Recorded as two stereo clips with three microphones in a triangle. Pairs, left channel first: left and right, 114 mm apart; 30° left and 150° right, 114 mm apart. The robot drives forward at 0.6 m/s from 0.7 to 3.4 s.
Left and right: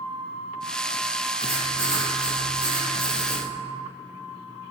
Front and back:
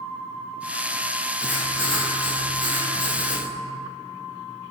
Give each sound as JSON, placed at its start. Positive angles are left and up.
{"t": 1.4, "sound": "writing", "azimuth_deg": -70, "distance_m": 1.4}